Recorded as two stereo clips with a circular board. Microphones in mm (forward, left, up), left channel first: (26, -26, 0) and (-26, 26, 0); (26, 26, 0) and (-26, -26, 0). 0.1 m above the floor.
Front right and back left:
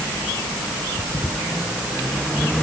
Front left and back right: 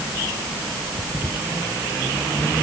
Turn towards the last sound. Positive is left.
No sound to turn to.